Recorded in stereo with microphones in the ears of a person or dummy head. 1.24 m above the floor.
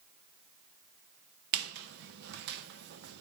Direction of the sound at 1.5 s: 70° right (ahead or behind).